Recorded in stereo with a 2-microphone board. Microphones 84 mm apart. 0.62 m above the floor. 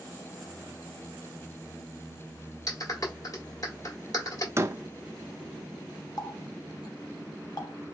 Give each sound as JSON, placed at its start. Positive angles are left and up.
{"t": 2.7, "sound": "a clap", "side_deg": 45, "distance_m": 1.6}
{"t": 4.6, "sound": "a door slam", "side_deg": -35, "distance_m": 0.5}
{"t": 6.2, "sound": "a running tap", "side_deg": 55, "distance_m": 1.2}